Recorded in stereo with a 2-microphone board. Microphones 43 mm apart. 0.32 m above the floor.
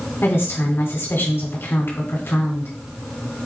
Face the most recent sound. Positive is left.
turn(degrees=65)  # may be behind; listen again after turning